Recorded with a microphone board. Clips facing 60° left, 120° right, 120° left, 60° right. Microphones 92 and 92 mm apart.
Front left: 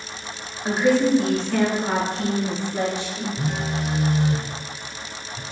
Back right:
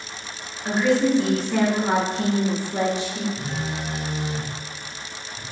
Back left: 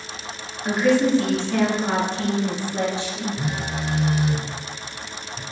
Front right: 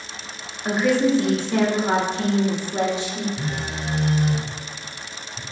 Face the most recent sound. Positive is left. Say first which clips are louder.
# front left 3 dB, back left 1 dB
turn(degrees=40)